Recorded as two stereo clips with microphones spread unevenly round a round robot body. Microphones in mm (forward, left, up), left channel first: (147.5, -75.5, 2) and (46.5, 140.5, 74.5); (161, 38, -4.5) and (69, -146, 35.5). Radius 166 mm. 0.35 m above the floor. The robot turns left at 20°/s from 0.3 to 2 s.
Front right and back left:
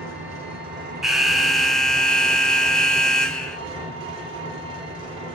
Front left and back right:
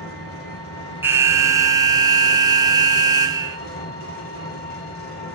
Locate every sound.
0.0 s an engine running: 80° left, 3.5 m; by 5.4 s 45° left, 3.5 m
1.0 s an alarm: 25° right, 0.5 m; by 3.6 s 45° right, 0.5 m